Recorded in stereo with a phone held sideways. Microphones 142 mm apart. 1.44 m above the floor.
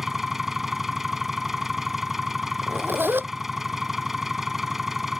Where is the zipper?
15° right (ahead or behind).